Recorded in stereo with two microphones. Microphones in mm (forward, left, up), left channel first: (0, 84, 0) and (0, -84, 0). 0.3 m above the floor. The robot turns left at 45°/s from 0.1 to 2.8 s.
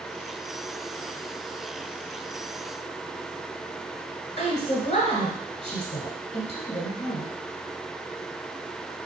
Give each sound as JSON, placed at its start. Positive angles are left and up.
{"t": 4.4, "sound": "a woman speaking", "side_deg": 40, "distance_m": 1.7}